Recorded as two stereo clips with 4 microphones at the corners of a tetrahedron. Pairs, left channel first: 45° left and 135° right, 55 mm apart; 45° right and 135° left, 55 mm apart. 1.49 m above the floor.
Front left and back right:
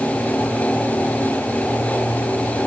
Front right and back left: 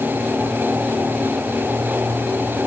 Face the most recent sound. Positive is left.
No sound to turn to.